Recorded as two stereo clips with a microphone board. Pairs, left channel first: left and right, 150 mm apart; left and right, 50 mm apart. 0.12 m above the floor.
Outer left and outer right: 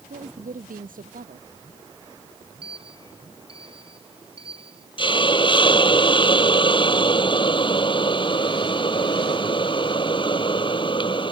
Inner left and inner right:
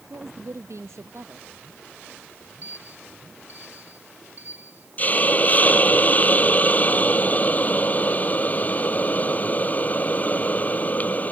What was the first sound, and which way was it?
A woman speaking, 70° right (ahead or behind).